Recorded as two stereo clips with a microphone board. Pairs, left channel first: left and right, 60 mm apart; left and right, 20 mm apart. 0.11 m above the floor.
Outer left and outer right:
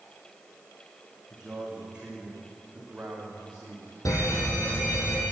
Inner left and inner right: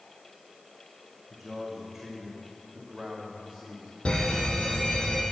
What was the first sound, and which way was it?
A man speaking, 10° right (ahead or behind).